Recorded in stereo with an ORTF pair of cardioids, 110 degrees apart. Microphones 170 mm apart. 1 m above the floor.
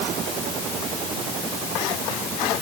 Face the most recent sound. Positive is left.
No sound to turn to.